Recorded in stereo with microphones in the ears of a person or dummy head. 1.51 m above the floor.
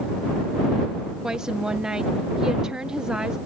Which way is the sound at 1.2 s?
5° right (ahead or behind).